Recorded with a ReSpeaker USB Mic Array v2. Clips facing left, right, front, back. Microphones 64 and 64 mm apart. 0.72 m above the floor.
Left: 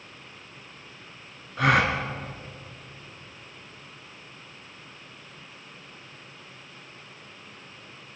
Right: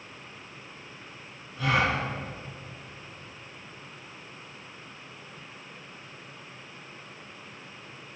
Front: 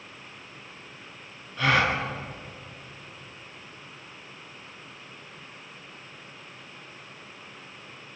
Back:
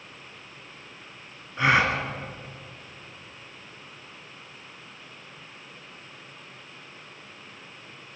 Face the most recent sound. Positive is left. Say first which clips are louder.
# left 4 dB, back 2 dB
turn(degrees=115)